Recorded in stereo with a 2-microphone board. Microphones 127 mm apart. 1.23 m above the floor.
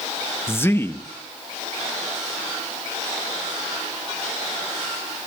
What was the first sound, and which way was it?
A man speaking, 20° left (ahead or behind).